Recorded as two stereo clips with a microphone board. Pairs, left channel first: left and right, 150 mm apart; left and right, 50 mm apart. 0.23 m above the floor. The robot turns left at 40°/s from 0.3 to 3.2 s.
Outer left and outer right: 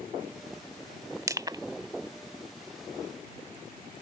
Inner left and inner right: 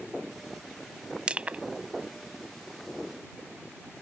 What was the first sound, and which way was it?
Crushing, 20° right (ahead or behind).